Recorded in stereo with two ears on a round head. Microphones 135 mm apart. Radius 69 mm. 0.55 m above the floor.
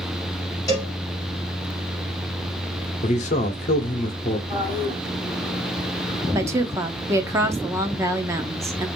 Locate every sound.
0.7 s a cowbell: 25° left (ahead or behind), 3 m
3.0 s a man speaking: 50° left (ahead or behind), 0.9 m
4.5 s a toilet flushing: 5° left (ahead or behind), 3 m
6.3 s a woman speaking: 20° right (ahead or behind), 0.6 m